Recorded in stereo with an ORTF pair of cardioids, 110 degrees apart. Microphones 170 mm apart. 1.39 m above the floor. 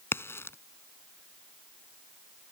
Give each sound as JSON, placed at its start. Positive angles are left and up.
{"t": 0.1, "sound": "a crack", "azimuth_deg": 15}